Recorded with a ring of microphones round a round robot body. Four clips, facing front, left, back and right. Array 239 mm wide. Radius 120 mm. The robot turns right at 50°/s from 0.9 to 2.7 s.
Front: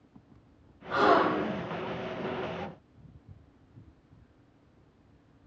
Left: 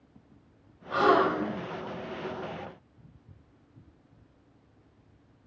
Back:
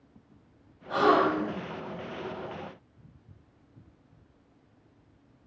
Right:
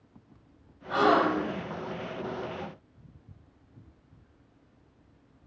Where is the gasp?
105° right, 1.2 m; by 1.6 s 70° right, 1.2 m.